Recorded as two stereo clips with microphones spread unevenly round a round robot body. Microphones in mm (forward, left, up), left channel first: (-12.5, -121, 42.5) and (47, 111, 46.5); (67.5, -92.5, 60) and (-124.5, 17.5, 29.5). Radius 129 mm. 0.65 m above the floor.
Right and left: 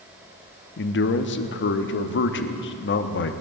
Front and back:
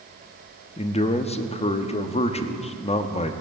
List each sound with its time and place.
0.8 s a man speaking: 95° right, 0.9 m